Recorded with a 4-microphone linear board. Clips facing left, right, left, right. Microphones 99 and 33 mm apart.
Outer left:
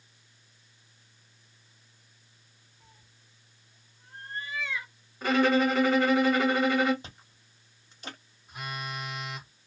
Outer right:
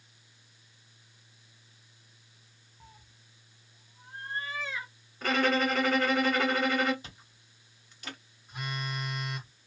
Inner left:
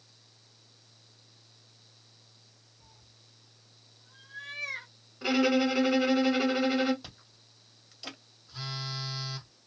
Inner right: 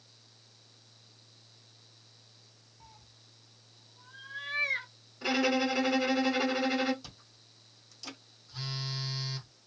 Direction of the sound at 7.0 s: 30° left (ahead or behind).